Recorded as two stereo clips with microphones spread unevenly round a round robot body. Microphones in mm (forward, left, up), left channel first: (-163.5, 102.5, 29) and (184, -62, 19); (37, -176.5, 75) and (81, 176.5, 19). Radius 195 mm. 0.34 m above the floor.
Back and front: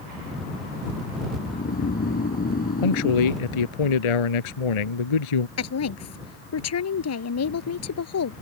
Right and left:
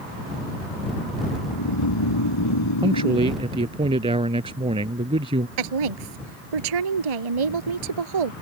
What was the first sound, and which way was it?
Snoring, 135° right.